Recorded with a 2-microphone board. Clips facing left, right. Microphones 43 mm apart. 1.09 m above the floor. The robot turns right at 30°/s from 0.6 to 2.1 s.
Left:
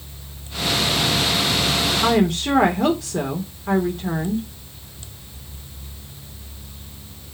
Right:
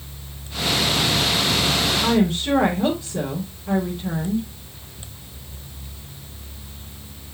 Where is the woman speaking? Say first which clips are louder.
Left 3 dB; 75° left (ahead or behind), 3.5 m; by 4.5 s 80° left, 3.5 m.